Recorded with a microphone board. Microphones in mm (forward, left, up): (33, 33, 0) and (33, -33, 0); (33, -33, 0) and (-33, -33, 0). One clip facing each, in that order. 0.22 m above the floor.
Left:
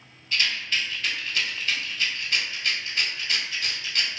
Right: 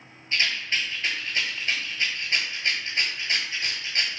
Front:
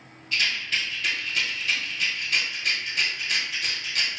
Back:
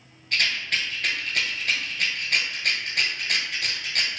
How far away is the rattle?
About 1.1 m.